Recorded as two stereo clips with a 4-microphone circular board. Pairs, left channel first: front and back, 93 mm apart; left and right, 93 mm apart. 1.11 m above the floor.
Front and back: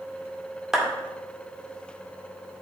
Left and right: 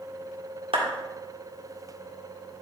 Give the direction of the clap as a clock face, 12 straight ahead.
3 o'clock.